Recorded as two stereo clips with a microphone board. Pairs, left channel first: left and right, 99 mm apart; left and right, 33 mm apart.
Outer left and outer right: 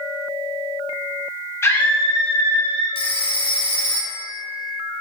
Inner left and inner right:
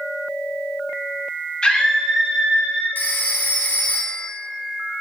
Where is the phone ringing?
65° left (ahead or behind), 0.8 m.